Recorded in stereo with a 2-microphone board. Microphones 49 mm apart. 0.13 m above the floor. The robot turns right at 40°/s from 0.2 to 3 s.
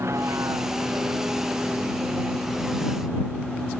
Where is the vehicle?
100° right; by 3.8 s 10° left.